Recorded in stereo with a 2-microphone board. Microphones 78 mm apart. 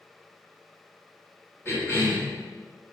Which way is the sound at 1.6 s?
30° left (ahead or behind).